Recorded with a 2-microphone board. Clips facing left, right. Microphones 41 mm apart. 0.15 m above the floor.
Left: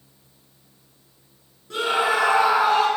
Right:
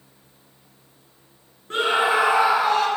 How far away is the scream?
About 2.5 m.